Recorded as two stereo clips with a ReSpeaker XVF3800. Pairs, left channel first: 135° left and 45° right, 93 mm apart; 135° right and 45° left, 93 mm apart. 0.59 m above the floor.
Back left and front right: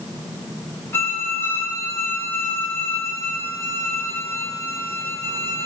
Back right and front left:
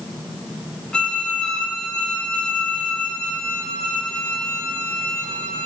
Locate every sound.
0.9 s a violin: 155° left, 0.8 m